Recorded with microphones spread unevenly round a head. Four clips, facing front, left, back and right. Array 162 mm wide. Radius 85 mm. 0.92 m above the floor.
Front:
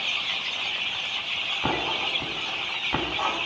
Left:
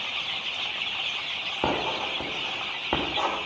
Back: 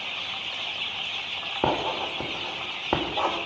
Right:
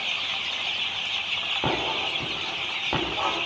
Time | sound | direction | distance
1.6 | writing | 165° left | 3.5 m